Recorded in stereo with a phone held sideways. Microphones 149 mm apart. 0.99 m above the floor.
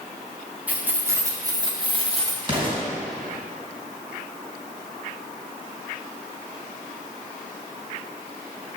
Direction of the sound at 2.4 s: 35° right (ahead or behind).